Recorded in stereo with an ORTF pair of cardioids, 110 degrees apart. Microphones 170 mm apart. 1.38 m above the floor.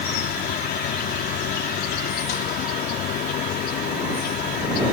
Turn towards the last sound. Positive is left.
turn(degrees=70)